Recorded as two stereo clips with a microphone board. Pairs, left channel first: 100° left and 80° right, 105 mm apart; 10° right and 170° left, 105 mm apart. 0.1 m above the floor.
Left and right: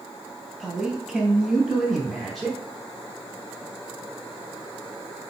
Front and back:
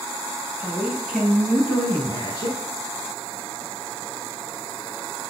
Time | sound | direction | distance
0.6 | a man speaking | 160° right | 1.1 m